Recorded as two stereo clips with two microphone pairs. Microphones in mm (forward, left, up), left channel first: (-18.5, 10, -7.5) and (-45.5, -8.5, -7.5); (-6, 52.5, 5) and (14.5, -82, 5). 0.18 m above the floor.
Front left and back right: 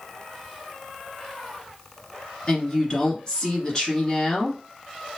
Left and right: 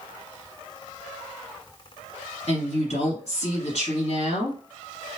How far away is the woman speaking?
About 1.9 m.